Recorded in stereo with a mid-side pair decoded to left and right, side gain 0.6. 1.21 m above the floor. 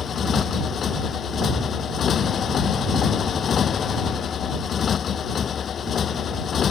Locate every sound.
0.0 s a motorcycle: 40° left